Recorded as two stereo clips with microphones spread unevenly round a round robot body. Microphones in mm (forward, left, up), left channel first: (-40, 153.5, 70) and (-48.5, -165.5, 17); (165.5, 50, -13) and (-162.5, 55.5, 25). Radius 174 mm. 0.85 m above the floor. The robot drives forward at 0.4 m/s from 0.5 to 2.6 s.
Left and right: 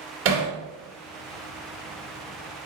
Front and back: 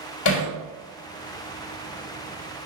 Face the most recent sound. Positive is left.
turn(degrees=-55)